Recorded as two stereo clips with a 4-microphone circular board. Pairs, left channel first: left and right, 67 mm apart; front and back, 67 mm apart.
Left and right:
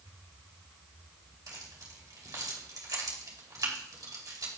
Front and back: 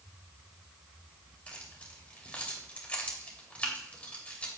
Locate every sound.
1.5 s keys jangling: 70° right, 2.5 m